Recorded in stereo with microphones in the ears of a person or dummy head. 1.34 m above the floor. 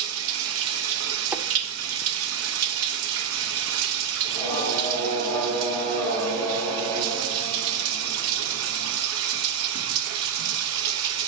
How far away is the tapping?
About 0.7 m.